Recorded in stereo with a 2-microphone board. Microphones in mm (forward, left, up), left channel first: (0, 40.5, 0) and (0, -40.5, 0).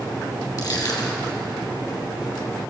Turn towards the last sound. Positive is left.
turn(degrees=55)  # may be behind; listen again after turning